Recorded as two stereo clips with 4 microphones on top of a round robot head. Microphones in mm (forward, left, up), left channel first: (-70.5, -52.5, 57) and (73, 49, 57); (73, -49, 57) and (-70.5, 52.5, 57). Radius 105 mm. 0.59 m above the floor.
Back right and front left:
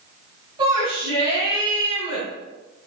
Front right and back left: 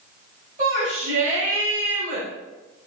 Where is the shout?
100° left, 3.5 m.